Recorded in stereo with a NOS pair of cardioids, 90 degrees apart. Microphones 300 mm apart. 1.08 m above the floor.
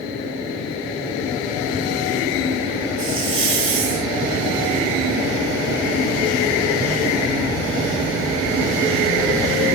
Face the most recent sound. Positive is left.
turn(degrees=-45)